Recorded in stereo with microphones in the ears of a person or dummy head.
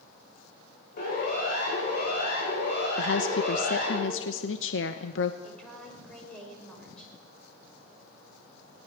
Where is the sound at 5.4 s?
5° left (ahead or behind), 5.5 m.